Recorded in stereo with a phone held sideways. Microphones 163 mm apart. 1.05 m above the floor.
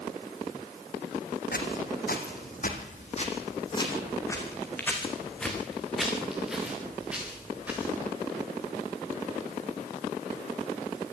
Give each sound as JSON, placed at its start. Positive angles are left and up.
{"t": 1.5, "sound": "footsteps", "side_deg": 70, "distance_m": 3.0}